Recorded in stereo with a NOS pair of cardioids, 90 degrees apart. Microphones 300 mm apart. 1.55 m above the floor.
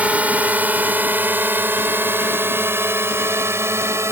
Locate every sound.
0.0 s a drone: 5° right; by 4.1 s 10° right